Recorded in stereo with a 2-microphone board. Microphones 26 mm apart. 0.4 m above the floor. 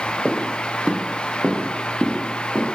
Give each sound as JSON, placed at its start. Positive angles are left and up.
{"t": 0.2, "sound": "footsteps", "side_deg": -10, "distance_m": 0.5}